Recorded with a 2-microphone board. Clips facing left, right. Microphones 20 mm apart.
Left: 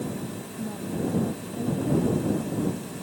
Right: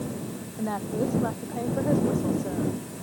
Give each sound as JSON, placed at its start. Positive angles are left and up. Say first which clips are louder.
{"t": 0.6, "sound": "a woman speaking", "louder": "right 3 dB", "side_deg": -65}